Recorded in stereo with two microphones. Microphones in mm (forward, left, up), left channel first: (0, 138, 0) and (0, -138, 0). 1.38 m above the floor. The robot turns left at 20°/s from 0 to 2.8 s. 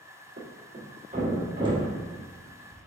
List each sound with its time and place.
0.4 s a thud: 40° right (ahead or behind), 1.6 m; by 2.8 s 5° left (ahead or behind), 1.6 m